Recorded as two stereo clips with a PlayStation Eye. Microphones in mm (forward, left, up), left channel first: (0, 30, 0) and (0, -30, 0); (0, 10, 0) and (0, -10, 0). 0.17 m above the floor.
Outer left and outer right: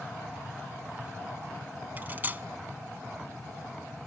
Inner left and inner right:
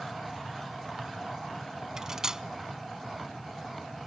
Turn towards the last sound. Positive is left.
turn(degrees=-30)  # may be behind; listen again after turning